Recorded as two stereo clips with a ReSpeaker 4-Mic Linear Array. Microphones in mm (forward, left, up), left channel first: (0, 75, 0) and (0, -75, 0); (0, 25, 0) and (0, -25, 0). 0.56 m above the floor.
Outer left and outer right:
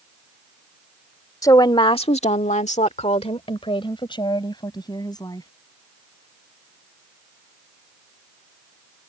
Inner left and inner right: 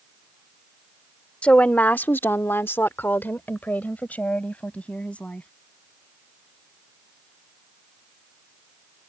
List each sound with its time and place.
1.4 s a woman speaking: 25° left (ahead or behind)